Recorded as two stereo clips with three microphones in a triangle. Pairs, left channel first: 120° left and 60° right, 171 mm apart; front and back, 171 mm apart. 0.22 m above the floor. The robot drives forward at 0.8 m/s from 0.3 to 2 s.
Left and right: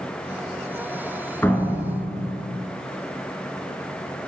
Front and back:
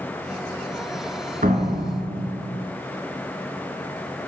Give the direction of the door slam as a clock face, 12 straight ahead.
5 o'clock.